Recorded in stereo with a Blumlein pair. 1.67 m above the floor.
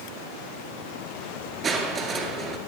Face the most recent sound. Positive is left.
turn(degrees=-15)